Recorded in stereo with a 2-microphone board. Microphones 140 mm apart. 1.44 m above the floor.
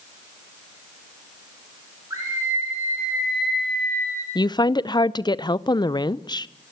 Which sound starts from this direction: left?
A woman speaking, at 4.3 s.